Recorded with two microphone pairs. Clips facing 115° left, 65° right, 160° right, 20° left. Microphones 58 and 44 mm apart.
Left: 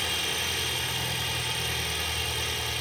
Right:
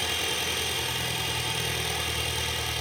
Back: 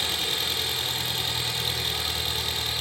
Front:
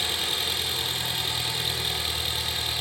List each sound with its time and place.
0.0 s an engine running: 65° right, 6.5 m